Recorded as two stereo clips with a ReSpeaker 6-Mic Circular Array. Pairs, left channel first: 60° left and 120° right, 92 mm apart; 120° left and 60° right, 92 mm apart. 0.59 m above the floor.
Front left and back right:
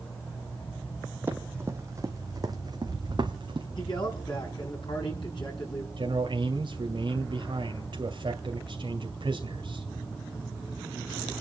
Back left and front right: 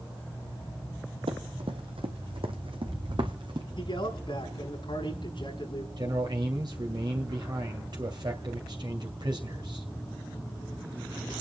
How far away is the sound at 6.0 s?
About 2.5 m.